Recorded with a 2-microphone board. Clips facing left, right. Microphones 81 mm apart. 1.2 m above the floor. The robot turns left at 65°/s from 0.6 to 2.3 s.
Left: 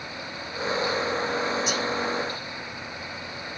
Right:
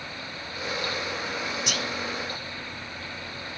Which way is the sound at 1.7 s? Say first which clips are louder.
Left 4 dB; 65° right (ahead or behind).